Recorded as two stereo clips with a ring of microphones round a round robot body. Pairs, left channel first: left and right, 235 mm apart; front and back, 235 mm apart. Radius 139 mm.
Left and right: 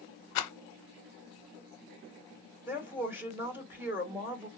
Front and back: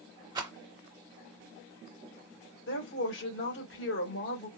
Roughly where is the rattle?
Left.